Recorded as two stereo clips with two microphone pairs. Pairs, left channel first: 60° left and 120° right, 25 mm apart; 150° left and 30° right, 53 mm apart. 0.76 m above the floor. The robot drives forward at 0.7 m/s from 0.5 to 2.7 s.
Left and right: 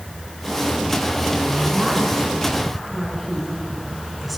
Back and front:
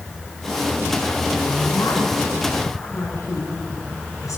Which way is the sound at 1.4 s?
145° left.